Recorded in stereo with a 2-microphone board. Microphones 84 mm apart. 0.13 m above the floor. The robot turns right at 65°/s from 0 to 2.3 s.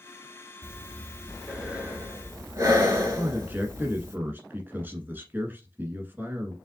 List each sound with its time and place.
0.6 s breathing: 35° left (ahead or behind), 1.3 m; by 4.2 s 40° right (ahead or behind), 1.3 m
3.2 s a man speaking: 25° right (ahead or behind), 1.2 m